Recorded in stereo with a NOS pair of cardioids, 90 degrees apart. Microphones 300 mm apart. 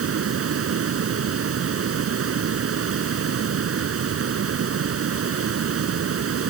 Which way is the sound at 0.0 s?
50° right.